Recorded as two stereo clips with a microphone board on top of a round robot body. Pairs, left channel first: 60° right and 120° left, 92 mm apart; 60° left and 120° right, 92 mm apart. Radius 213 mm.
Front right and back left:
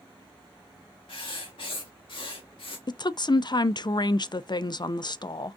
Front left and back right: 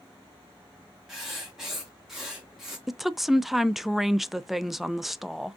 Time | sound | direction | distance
1.1 | writing | 35° right | 0.6 m
2.9 | a woman speaking | 35° right | 0.5 m